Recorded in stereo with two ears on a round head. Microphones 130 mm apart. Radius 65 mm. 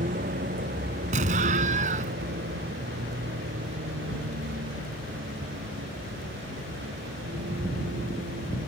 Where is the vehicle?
55° right (ahead or behind); by 8.7 s 85° right.